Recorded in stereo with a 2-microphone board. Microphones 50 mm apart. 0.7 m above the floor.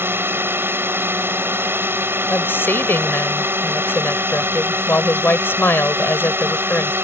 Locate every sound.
0.0 s a drone: 50° right (ahead or behind)
2.3 s a woman speaking: 45° left (ahead or behind)